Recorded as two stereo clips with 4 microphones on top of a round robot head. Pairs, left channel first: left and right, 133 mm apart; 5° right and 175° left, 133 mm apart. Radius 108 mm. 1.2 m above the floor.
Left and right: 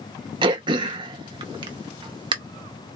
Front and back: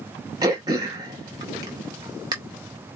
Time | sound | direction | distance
0.4 | throat clearing | 120° right | 0.5 m